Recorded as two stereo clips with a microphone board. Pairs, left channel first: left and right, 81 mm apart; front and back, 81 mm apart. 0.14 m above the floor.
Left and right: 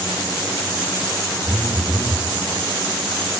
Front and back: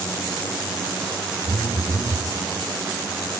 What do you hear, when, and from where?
1.4 s a phone buzzing: 135° left, 3 m